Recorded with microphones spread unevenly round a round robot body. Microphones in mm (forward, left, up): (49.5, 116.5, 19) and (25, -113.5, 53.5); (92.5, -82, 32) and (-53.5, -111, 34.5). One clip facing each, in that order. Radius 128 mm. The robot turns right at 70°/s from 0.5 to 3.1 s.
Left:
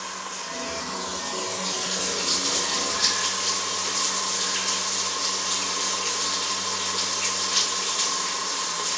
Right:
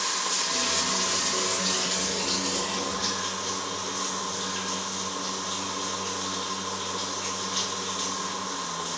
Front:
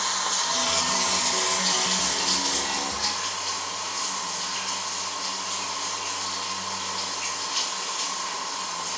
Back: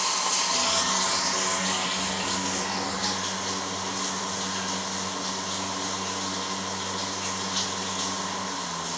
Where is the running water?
95° right, 0.7 m; by 9.0 s 90° left, 0.7 m.